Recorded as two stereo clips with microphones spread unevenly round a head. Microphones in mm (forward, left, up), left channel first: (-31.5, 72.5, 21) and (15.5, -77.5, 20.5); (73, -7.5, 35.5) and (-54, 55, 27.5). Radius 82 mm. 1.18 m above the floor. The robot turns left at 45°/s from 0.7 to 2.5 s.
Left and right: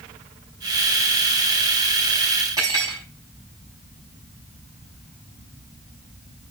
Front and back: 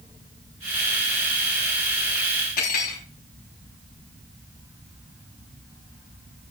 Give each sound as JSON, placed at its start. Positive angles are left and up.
{"t": 2.6, "sound": "cutlery clinking", "azimuth_deg": -5, "distance_m": 5.5}